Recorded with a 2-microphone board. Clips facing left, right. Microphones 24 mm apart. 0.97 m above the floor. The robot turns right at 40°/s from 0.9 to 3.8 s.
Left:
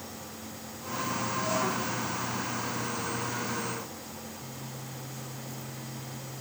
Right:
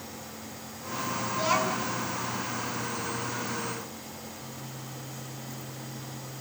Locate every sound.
1.3 s a child speaking: 55° right (ahead or behind), 7 m; by 1.9 s 30° right (ahead or behind), 7 m